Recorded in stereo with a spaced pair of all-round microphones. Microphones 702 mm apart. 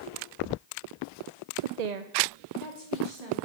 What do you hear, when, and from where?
1.6 s a woman speaking: 45° right (ahead or behind), 0.6 m; by 3.4 s 65° right (ahead or behind), 3 m